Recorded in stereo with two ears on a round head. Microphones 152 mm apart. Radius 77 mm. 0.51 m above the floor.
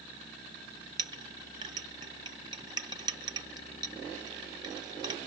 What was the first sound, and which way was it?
A clink, 25° right (ahead or behind).